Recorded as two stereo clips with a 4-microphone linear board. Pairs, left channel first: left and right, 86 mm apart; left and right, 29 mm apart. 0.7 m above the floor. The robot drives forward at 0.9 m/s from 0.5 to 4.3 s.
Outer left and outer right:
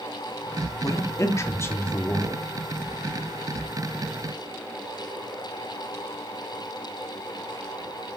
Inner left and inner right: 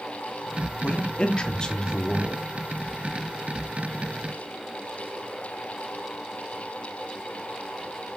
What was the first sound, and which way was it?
A man speaking, 40° left (ahead or behind).